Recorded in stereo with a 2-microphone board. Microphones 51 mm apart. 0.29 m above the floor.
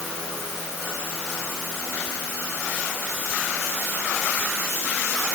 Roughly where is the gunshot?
No gunshot in this recording.